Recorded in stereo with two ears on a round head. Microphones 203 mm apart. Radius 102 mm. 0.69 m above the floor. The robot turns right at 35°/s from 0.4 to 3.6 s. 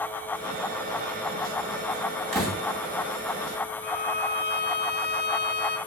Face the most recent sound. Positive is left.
turn(degrees=45)  # may be behind; listen again after turning